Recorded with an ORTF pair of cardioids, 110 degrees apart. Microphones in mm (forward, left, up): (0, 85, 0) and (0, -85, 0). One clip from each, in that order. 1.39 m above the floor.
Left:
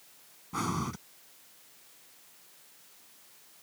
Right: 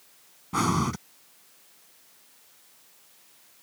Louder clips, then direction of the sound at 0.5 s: Right 8 dB; 45° right.